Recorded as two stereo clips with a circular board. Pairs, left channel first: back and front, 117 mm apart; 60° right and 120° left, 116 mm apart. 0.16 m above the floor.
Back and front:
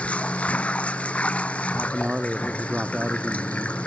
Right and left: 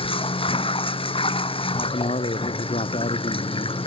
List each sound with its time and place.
0.0 s running water: 100° right
1.7 s a man speaking: 80° right